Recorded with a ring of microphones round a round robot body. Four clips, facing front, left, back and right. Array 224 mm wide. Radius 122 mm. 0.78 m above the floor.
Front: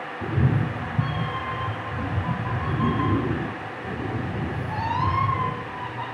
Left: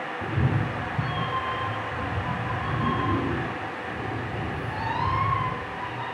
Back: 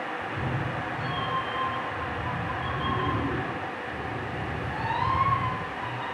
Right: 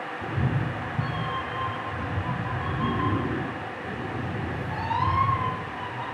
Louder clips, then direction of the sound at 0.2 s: Left 2 dB, front 5 dB; 15° left.